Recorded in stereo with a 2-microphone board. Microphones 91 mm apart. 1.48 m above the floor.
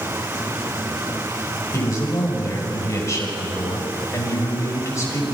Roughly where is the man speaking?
Left.